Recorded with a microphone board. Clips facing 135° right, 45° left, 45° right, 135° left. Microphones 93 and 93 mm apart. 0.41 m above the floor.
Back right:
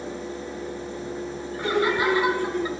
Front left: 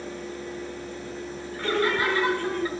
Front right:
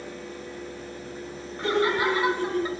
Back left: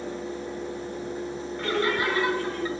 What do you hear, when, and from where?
1.6 s laughter: 80° right, 0.9 m